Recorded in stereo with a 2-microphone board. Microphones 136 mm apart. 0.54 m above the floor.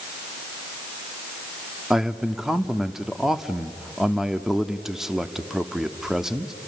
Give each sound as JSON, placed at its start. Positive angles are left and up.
{"t": 1.9, "sound": "a man speaking", "side_deg": -5, "distance_m": 0.9}